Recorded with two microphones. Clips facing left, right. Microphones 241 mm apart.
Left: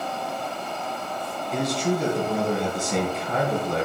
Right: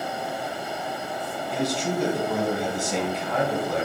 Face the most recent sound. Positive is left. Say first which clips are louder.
# left 2 dB
turn(degrees=0)  # may be behind; listen again after turning